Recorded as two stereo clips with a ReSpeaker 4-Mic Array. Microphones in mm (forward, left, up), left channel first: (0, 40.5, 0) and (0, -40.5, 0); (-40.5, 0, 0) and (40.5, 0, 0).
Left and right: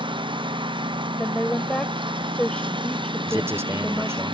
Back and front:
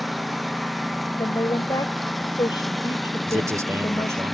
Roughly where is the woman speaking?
Behind.